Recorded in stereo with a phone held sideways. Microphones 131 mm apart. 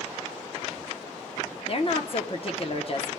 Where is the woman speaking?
45° left (ahead or behind), 0.9 m.